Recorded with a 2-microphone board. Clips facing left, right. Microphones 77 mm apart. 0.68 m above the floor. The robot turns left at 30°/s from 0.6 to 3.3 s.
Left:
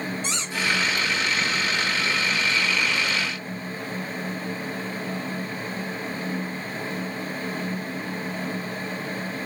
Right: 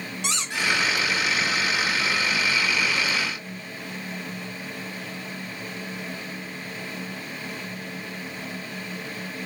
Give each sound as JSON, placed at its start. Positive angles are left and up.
{"t": 0.2, "sound": "a squeak", "side_deg": -80, "distance_m": 1.5}